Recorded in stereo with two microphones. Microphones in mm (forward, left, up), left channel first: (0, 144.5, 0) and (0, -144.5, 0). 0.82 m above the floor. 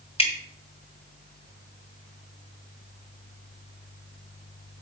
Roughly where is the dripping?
Centre.